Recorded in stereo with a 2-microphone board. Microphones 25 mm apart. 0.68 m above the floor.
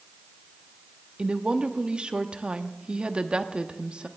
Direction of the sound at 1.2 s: 45° right (ahead or behind).